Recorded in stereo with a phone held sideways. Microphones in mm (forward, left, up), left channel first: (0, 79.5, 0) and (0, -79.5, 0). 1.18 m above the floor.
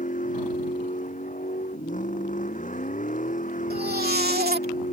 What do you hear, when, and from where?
0.0 s a vehicle: 55° left (ahead or behind)
3.7 s a baby crying: 80° right